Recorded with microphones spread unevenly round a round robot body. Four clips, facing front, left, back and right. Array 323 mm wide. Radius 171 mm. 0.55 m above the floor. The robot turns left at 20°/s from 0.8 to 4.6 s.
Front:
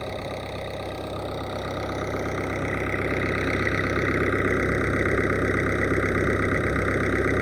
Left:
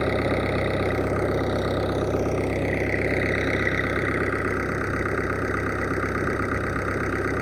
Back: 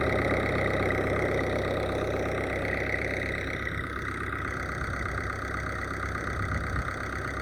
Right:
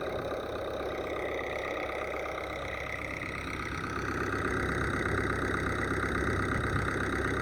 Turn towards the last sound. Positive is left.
turn(degrees=20)